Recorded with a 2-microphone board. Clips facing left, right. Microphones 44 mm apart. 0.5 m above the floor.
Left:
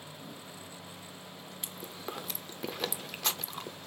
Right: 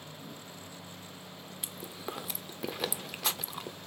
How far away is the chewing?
About 0.7 m.